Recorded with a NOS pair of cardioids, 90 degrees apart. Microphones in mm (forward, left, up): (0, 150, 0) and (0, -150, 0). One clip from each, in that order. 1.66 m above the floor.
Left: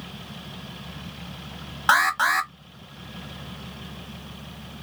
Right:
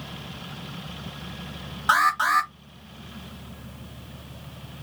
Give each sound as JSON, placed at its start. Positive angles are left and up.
{"t": 1.9, "sound": "an alarm", "azimuth_deg": 35, "distance_m": 0.9}